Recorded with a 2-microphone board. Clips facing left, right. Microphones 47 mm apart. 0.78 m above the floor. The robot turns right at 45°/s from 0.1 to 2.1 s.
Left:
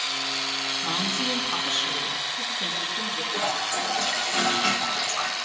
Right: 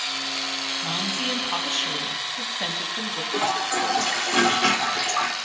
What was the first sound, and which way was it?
A woman speaking, 160° right.